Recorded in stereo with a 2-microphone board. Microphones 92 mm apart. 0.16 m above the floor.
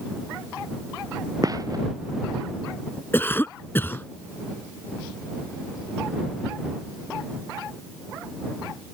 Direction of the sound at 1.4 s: 40° right (ahead or behind).